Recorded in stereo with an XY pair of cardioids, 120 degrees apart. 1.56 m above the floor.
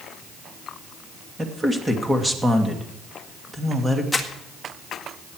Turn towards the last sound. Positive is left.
turn(degrees=10)